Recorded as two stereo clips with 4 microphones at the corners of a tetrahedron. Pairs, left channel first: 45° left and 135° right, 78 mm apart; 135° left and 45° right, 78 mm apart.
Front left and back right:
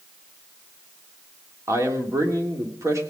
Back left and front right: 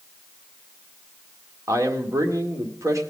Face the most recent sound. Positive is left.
turn(degrees=-85)